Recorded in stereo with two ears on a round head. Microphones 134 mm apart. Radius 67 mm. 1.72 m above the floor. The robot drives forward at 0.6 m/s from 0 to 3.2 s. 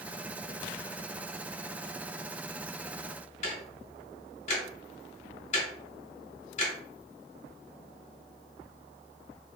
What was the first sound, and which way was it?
Ticking, 50° left (ahead or behind).